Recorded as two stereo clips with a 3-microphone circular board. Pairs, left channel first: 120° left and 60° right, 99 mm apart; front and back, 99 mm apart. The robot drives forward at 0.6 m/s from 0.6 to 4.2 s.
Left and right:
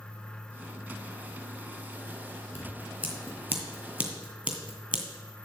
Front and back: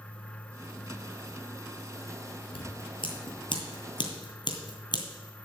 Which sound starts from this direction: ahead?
Scissors, at 2.5 s.